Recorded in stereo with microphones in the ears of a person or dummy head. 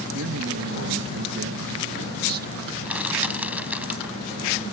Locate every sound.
0.1 s a man speaking: 85° right; by 2.5 s 50° right (ahead or behind)
2.9 s crushing: 5° right (ahead or behind)